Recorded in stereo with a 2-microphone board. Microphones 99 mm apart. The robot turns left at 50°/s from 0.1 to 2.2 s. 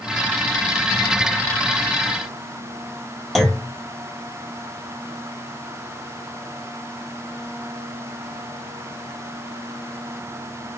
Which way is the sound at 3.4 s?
Centre (ahead or behind).